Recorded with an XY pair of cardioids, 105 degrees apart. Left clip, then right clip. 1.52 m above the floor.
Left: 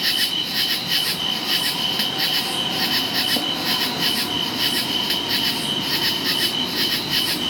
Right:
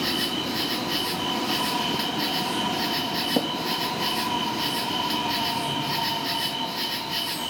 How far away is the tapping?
About 3 m.